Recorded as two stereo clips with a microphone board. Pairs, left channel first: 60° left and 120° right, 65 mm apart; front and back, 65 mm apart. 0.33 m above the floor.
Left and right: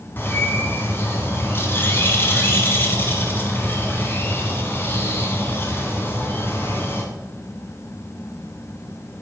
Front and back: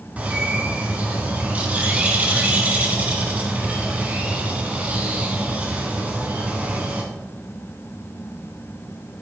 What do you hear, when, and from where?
0.2 s a bird: 115° left, 1.3 m